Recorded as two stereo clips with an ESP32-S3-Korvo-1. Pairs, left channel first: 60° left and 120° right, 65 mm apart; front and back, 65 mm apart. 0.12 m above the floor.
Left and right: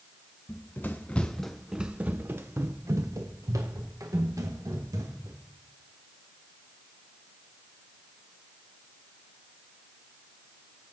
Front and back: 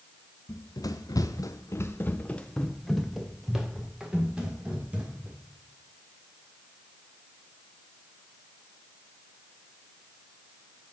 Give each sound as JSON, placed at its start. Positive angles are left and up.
{"t": 0.5, "sound": "running footsteps", "azimuth_deg": 15, "distance_m": 1.1}